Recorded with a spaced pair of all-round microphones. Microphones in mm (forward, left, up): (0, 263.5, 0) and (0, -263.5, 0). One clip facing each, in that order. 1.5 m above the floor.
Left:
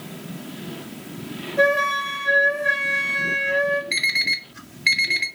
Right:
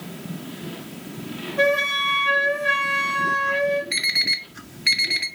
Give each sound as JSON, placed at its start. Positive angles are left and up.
{"t": 1.6, "sound": "a flute", "side_deg": -25, "distance_m": 3.0}
{"t": 3.9, "sound": "an alarm clock", "side_deg": 25, "distance_m": 0.8}